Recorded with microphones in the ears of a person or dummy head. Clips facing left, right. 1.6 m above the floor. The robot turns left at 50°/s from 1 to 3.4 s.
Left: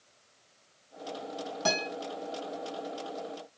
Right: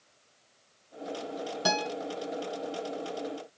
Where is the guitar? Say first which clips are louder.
Right 1 dB; 10° right (ahead or behind), 3 m; by 1.9 s 20° right (ahead or behind), 3 m.